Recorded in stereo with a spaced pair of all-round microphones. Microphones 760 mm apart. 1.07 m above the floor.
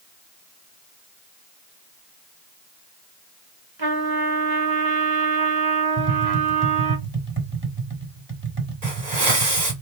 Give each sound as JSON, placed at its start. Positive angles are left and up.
{"t": 3.8, "sound": "a trumpet", "side_deg": -30, "distance_m": 1.3}
{"t": 6.0, "sound": "tapping", "side_deg": -15, "distance_m": 1.1}
{"t": 8.8, "sound": "a hiss", "side_deg": -65, "distance_m": 2.0}